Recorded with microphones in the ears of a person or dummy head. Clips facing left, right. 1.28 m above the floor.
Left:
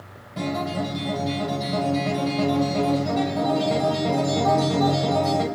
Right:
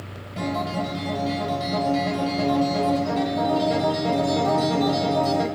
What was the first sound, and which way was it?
A guitar, 10° right (ahead or behind).